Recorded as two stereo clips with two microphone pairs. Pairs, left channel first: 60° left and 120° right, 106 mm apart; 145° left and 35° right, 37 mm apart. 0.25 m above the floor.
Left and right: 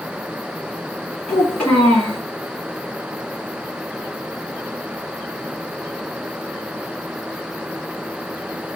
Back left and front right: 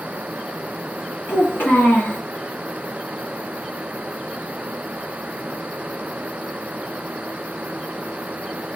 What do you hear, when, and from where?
1.3 s a child speaking: 140° left, 1.5 m